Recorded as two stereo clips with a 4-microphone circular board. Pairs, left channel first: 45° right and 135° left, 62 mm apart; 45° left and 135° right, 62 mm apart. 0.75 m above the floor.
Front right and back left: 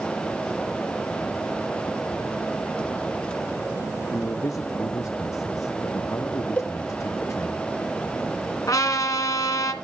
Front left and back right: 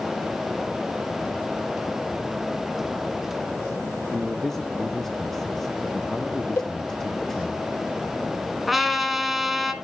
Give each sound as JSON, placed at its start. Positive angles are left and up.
{"t": 4.1, "sound": "a man speaking", "azimuth_deg": -40, "distance_m": 0.7}
{"t": 6.6, "sound": "a cowbell", "azimuth_deg": 15, "distance_m": 0.6}
{"t": 8.7, "sound": "a trumpet", "azimuth_deg": -50, "distance_m": 1.4}